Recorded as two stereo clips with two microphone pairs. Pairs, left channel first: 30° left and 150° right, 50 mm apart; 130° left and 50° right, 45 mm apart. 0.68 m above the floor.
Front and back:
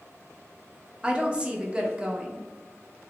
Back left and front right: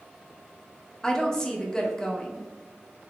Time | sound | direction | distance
1.0 | a woman speaking | 175° right | 0.5 m